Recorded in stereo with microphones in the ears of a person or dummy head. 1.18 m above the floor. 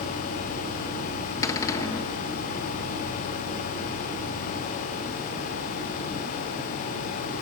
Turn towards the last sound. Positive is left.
turn(degrees=15)  # may be behind; listen again after turning